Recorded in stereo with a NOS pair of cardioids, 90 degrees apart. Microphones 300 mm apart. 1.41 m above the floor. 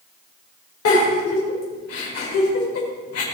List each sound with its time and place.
0.8 s a giggle: 55° left, 6 m